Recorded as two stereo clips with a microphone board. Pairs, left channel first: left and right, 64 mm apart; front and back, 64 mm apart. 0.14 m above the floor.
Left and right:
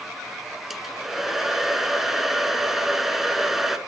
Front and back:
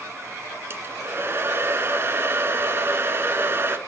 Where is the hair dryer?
175° right, 0.9 m.